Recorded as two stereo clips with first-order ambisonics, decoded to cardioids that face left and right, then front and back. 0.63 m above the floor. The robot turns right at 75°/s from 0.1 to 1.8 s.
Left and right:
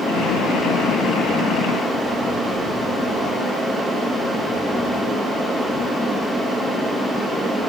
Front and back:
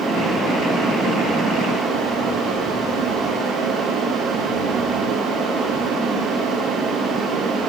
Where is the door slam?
No door slam in this recording.